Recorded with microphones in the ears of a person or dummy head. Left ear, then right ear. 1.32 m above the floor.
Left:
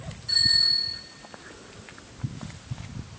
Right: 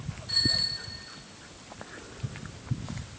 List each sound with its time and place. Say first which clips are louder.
0.3 s a bicycle bell: left 6 dB; 75° left (ahead or behind), 8.5 m